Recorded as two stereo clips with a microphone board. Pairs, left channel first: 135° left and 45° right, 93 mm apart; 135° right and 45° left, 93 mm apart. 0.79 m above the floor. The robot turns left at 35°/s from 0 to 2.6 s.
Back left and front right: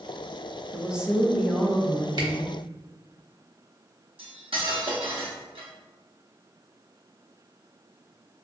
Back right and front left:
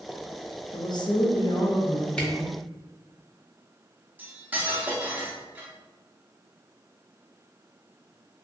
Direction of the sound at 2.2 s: 60° right.